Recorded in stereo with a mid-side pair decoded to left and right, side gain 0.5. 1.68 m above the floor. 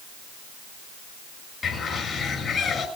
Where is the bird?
45° left, 7 m.